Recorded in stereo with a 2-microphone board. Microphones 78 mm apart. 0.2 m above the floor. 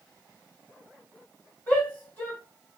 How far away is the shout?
About 1.9 m.